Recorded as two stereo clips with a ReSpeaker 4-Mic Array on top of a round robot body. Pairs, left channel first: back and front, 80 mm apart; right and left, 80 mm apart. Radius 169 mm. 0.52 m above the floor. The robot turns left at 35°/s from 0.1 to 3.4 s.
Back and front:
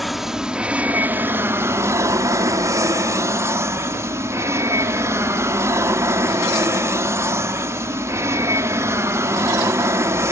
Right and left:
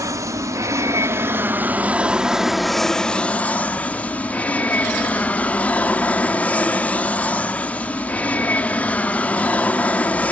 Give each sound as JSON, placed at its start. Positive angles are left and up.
{"t": 0.0, "sound": "an aircraft", "azimuth_deg": 90}